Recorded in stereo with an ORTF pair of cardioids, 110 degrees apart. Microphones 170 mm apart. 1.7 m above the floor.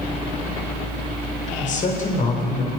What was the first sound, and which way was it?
A man speaking, 50° left.